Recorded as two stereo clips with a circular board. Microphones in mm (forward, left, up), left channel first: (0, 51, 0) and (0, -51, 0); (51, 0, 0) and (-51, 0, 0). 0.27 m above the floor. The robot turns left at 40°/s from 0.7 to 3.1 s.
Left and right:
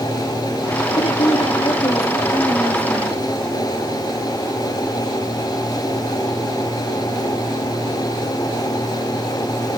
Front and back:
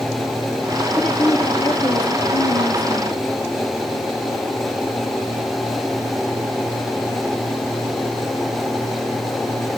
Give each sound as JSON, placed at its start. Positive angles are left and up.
{"t": 0.9, "sound": "a woman speaking", "azimuth_deg": 85, "distance_m": 6.0}